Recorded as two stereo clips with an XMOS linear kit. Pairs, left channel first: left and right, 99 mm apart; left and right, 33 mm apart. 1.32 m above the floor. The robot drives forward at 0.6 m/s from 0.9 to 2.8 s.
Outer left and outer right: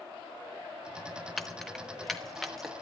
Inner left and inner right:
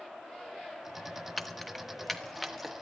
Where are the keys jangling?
Centre (ahead or behind), 0.6 m.